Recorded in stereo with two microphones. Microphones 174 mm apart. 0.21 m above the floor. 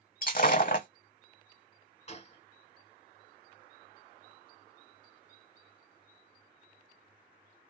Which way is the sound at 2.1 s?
40° left (ahead or behind).